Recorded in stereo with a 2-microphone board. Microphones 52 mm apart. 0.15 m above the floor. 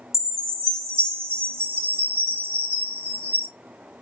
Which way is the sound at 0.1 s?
65° left (ahead or behind).